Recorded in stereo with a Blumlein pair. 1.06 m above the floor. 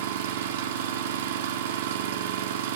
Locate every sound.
0.0 s an engine running: 55° right, 1.6 m